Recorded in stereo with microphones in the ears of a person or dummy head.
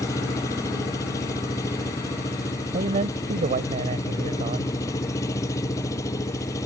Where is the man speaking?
35° right (ahead or behind).